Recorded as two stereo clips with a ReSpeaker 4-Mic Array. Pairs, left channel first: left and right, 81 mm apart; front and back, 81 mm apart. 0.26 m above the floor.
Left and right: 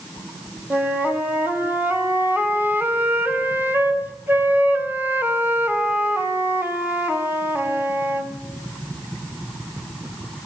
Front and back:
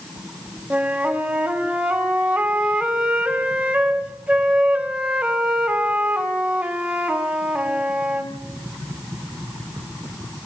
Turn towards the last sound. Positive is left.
turn(degrees=-115)